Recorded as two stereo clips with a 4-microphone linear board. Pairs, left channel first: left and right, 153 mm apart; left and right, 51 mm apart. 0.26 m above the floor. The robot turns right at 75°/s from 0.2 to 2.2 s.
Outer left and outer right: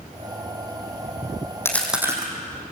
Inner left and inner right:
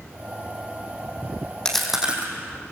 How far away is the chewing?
About 4 m.